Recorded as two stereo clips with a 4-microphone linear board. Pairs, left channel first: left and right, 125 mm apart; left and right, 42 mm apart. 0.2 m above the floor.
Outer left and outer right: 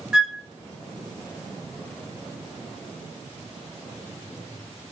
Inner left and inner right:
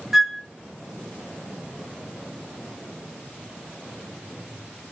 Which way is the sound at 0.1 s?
5° right (ahead or behind).